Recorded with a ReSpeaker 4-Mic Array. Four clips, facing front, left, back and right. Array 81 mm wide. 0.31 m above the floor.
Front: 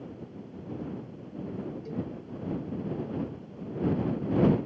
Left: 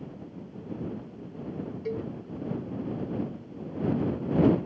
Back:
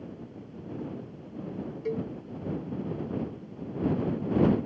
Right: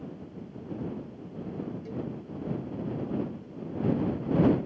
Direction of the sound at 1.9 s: 145° left.